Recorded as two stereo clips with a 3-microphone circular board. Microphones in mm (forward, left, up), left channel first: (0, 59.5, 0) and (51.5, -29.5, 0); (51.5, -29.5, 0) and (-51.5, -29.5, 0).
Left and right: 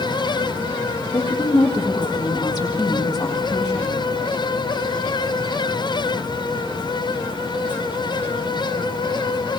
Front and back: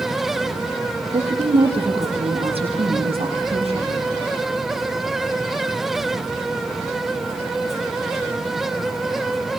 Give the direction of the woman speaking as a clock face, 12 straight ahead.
7 o'clock.